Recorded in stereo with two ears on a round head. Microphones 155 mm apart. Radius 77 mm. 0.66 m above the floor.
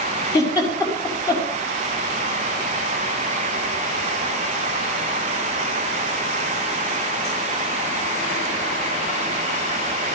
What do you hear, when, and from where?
0.3 s a giggle: 20° left (ahead or behind), 6 m